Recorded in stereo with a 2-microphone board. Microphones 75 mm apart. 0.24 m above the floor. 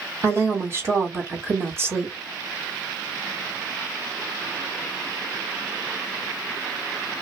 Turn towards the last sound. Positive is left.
turn(degrees=-35)  # may be behind; listen again after turning